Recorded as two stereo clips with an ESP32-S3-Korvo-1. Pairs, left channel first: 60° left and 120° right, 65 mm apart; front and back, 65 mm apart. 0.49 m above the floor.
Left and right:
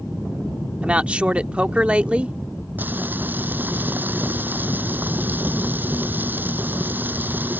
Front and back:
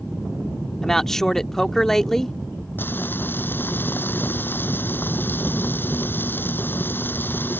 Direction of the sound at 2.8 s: 60° right.